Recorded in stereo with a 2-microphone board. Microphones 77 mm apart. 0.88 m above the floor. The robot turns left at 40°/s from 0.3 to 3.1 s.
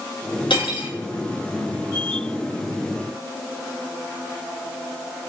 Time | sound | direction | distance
0.5 | cutlery clinking | 85° left | 1.5 m